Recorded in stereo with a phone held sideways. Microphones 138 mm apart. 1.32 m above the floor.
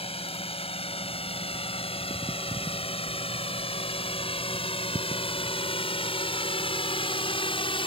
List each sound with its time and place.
0.0 s a drone: 45° left (ahead or behind); by 7.9 s 40° left (ahead or behind)